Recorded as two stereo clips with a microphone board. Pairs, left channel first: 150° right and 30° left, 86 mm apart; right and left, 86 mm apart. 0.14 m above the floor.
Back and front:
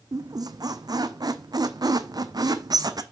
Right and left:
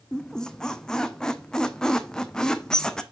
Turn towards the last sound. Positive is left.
turn(degrees=-10)